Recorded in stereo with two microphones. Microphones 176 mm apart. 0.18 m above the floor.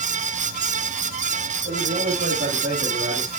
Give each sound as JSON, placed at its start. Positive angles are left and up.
{"t": 1.6, "sound": "a man speaking", "side_deg": -65, "distance_m": 8.5}